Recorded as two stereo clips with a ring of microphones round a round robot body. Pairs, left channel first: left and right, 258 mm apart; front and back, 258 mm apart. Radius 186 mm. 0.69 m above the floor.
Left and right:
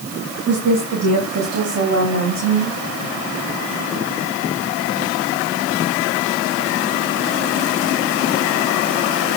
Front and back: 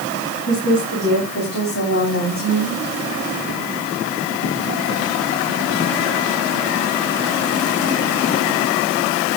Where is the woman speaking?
65° right, 5 m; by 2.8 s 55° right, 4 m.